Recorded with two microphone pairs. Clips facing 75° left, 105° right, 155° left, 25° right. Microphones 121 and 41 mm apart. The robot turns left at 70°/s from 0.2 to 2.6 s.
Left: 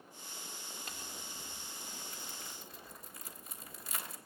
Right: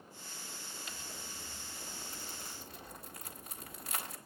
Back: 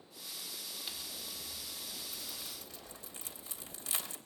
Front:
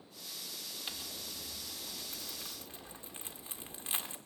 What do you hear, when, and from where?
0.9 s crumpling: 40° left, 1.7 m; by 4.2 s 80° right, 1.7 m